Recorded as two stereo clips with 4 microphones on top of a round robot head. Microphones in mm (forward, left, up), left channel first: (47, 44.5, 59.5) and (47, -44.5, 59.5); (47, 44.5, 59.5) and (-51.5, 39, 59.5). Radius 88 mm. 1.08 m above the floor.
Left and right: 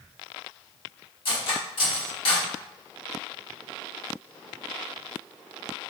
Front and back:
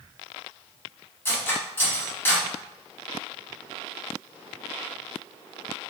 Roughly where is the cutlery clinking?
Left.